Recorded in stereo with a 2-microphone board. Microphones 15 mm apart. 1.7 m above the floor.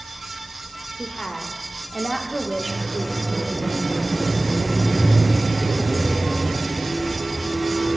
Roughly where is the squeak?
Centre.